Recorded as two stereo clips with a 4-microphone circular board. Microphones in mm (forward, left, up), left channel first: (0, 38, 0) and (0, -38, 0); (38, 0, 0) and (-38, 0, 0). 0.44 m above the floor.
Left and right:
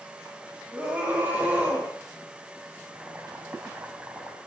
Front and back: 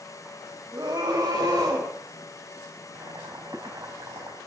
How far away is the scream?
About 3 m.